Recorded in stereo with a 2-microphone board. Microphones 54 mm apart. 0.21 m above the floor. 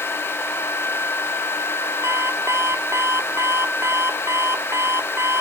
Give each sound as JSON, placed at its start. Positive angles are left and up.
{"t": 2.0, "sound": "an alarm clock", "side_deg": -60}